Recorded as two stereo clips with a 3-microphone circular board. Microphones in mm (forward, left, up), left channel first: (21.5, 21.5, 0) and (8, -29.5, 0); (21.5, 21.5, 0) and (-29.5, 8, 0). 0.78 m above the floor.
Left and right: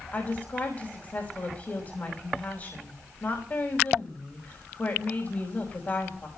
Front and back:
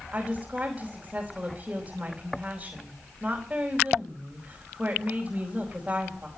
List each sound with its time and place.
0.1 s a woman speaking: 120° left, 4.5 m